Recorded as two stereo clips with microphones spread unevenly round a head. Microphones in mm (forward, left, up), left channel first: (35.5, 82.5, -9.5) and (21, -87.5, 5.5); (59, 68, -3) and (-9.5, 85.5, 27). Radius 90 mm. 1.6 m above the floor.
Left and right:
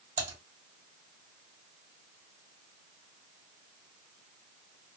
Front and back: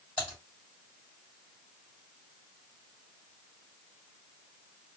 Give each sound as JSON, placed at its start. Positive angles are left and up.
{"t": 0.2, "sound": "typing on a keyboard", "azimuth_deg": -115, "distance_m": 1.7}